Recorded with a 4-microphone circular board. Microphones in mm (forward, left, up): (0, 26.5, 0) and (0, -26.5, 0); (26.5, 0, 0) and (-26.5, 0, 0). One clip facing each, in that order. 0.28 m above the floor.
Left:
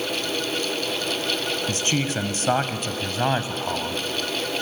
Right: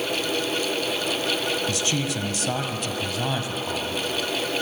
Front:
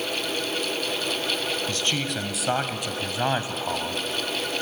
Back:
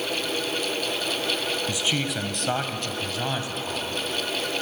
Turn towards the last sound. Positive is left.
turn(degrees=35)